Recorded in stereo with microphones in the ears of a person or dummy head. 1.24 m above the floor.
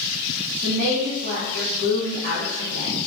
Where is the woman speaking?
65° right (ahead or behind), 0.7 m.